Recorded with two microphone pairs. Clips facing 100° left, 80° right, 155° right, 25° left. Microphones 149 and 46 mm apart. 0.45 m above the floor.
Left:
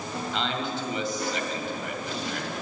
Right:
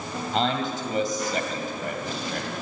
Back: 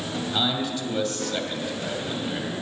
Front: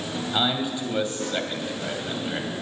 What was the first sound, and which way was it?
A man speaking, 40° right.